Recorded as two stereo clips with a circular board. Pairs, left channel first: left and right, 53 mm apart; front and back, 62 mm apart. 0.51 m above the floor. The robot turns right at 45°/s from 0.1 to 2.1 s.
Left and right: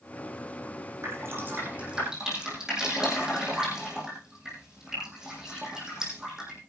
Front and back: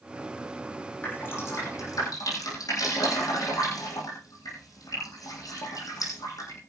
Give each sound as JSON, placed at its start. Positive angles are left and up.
{"t": 1.0, "sound": "dripping", "azimuth_deg": -60, "distance_m": 8.0}